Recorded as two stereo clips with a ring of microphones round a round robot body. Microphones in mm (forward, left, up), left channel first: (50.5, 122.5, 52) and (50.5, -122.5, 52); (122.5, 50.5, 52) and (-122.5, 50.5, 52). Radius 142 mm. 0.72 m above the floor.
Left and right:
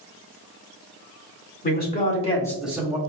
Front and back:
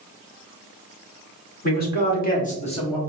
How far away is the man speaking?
About 1.9 m.